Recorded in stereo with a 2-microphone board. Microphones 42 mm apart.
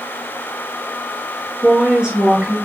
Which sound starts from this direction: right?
A woman speaking, at 1.6 s.